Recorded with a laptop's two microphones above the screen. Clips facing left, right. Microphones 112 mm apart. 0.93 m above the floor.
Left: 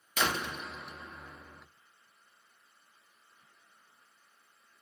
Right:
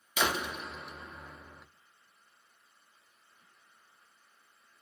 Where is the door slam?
5° right (ahead or behind), 0.7 m.